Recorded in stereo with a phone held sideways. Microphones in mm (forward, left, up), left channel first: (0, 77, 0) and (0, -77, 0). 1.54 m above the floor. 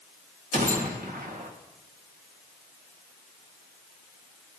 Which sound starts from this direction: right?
A gunshot, at 0.5 s.